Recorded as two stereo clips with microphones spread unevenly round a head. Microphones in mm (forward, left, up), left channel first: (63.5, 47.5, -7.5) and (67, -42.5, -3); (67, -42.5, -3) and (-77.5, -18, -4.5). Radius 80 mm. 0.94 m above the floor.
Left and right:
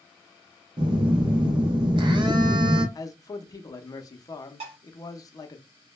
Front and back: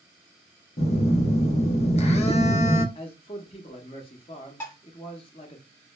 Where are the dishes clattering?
85° right, 1.2 m.